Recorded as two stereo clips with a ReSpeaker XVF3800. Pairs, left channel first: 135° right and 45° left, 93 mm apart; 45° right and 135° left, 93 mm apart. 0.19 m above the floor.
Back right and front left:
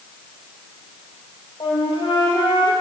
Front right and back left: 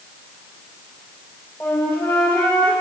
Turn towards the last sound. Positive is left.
turn(degrees=-115)